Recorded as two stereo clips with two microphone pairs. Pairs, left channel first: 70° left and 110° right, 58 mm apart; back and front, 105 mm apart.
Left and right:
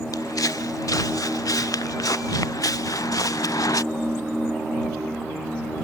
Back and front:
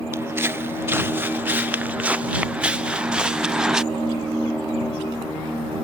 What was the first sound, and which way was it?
Footsteps, 65° left.